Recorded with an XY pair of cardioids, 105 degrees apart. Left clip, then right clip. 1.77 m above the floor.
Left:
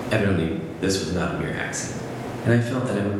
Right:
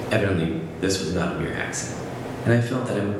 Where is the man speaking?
5° right, 0.7 m.